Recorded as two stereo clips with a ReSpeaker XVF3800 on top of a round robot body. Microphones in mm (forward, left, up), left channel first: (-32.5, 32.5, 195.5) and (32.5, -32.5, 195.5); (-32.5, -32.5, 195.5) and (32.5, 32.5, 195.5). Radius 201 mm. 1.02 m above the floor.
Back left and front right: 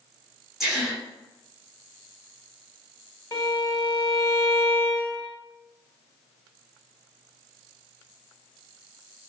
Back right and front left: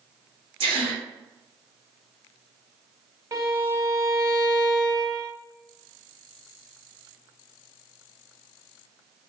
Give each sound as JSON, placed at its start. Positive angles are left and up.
{"t": 0.6, "sound": "a gasp", "azimuth_deg": 40, "distance_m": 0.8}
{"t": 3.3, "sound": "a violin", "azimuth_deg": 90, "distance_m": 0.9}